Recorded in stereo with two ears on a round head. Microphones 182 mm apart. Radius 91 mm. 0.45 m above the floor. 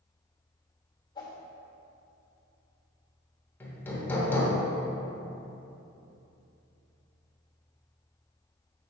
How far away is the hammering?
About 1.1 m.